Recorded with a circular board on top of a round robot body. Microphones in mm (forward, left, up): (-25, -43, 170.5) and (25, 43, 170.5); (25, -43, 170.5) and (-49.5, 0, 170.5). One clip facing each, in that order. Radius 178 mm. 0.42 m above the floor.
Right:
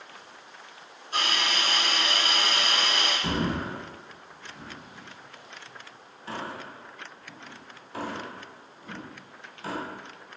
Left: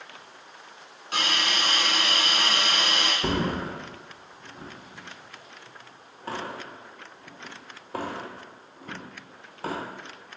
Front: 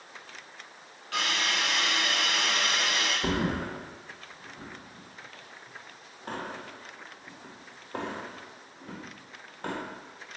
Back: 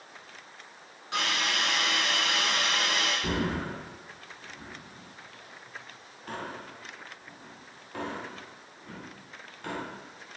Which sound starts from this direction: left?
A hiss, at 1.1 s.